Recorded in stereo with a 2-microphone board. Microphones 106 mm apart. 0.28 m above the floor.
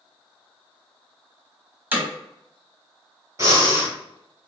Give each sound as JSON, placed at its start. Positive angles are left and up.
{"t": 1.9, "sound": "hammering", "side_deg": -20, "distance_m": 1.2}
{"t": 3.4, "sound": "breathing", "side_deg": -35, "distance_m": 1.3}